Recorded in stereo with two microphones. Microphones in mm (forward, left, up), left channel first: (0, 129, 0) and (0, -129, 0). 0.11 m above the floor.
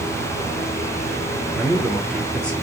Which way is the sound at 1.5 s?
5° left (ahead or behind).